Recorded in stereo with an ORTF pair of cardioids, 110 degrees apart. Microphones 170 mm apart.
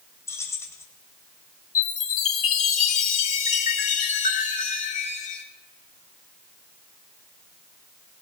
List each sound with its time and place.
0.3 s keys jangling: 15° left, 3.5 m
1.8 s a chime: 45° left, 2.5 m